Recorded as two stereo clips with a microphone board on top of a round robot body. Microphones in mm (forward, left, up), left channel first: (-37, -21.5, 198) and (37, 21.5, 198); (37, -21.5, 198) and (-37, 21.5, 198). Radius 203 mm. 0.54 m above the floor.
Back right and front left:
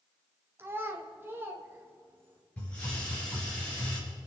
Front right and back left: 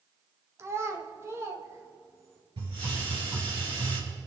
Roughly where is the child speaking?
Left.